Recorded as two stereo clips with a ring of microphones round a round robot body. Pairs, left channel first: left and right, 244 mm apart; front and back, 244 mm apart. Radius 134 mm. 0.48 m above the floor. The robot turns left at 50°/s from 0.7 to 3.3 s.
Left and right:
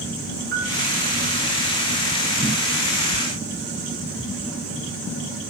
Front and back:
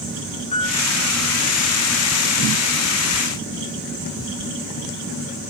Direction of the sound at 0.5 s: 60° right.